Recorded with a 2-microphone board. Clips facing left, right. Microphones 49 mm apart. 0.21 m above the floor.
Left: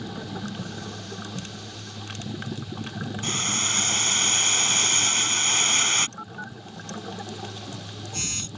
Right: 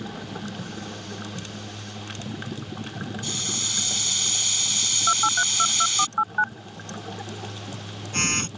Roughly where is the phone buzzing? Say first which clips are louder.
Right 4 dB; right.